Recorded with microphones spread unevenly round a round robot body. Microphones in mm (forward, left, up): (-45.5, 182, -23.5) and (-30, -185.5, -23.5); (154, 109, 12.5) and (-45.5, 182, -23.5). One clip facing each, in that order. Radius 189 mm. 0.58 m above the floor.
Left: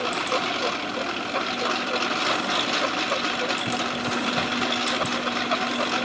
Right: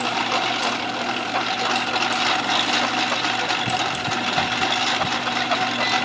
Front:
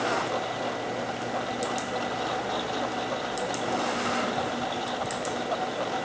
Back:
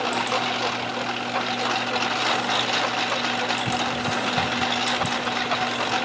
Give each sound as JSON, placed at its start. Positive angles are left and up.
{"t": 0.0, "sound": "a lawn mower", "azimuth_deg": -160}